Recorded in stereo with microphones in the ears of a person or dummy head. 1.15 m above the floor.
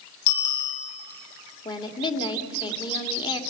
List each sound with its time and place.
0.3 s a bicycle bell: 45° left (ahead or behind), 6 m
1.6 s a woman speaking: 25° left (ahead or behind), 2 m